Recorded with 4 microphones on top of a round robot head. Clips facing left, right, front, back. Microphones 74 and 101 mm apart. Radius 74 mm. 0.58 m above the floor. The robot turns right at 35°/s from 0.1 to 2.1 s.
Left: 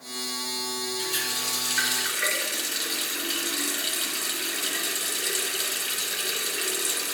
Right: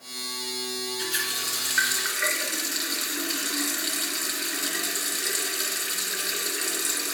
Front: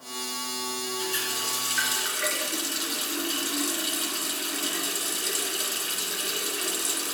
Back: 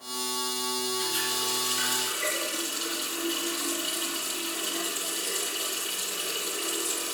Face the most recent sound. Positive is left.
turn(degrees=-25)